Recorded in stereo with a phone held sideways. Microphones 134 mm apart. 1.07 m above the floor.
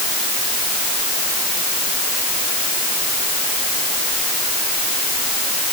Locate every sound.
Only background noise.